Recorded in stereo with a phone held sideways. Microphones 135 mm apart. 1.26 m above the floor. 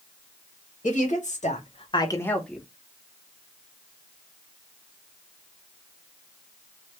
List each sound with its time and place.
0.8 s a woman speaking: 75° left (ahead or behind), 1.1 m; by 2.6 s 5° right (ahead or behind), 0.8 m